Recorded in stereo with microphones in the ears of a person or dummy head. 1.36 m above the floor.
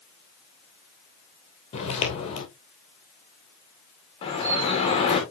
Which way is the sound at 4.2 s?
35° left (ahead or behind).